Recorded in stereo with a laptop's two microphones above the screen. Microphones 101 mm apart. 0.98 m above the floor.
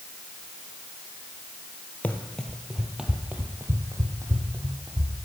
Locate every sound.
2.0 s running footsteps: 20° left (ahead or behind), 1.2 m; by 5.2 s 40° right (ahead or behind), 2.5 m